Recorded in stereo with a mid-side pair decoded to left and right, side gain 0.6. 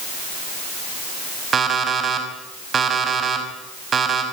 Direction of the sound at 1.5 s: 35° right.